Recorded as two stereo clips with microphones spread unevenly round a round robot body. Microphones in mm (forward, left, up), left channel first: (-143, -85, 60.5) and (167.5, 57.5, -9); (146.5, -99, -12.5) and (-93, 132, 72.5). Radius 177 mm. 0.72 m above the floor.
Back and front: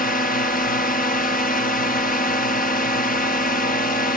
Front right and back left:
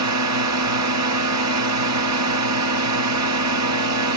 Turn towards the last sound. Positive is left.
turn(degrees=140)